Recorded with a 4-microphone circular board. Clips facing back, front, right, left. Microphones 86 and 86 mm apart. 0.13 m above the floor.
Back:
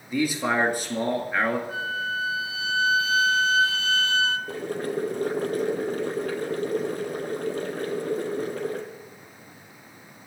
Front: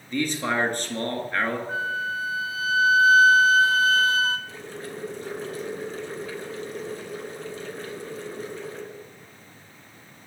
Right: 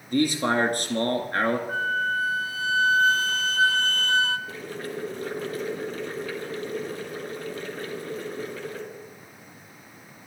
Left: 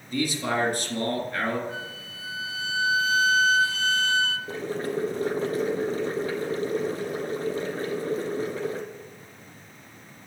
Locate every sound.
0.1 s a man speaking: 100° right, 2.5 m
1.7 s a flute: 50° right, 0.8 m
4.5 s boiling: 150° left, 2 m